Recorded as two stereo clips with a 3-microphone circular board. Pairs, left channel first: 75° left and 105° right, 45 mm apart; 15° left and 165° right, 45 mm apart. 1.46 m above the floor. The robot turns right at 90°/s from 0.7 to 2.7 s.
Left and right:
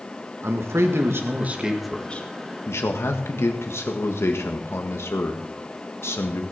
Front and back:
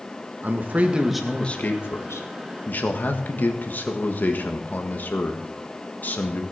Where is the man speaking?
120° right, 1.7 m; by 6.4 s 60° left, 1.7 m.